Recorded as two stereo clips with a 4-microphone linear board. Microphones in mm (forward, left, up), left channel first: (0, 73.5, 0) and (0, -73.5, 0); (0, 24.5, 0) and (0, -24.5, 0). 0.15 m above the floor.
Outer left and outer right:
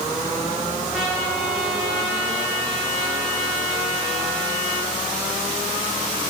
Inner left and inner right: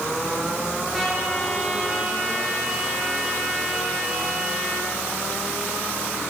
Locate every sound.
0.9 s a trumpet: 5° right (ahead or behind), 5.5 m